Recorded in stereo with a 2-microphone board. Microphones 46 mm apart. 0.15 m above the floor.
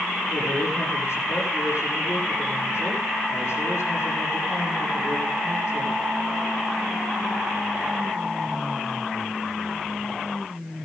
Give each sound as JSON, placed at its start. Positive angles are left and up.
{"t": 0.3, "sound": "a man speaking", "side_deg": 75, "distance_m": 8.0}